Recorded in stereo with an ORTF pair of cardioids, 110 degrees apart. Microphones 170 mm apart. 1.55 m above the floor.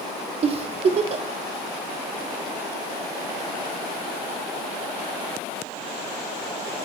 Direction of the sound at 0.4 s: 40° right.